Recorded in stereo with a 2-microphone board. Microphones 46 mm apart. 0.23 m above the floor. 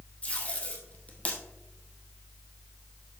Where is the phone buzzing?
I don't hear a phone buzzing.